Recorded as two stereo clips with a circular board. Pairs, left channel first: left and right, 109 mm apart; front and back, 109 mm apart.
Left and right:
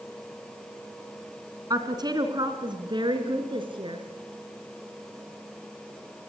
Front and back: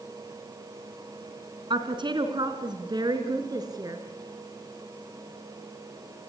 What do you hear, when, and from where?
1.7 s a woman speaking: 140° right, 3 m; by 4.0 s 125° right, 4 m